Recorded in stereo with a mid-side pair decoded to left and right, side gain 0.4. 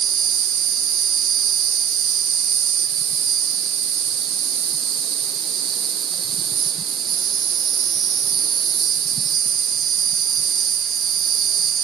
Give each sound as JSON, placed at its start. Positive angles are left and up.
{"t": 0.0, "sound": "an insect", "azimuth_deg": -60}